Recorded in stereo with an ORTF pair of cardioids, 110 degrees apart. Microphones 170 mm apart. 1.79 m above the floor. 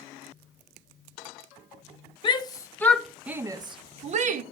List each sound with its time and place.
2.2 s a shout: 30° left, 0.9 m; by 4.4 s 50° right, 0.9 m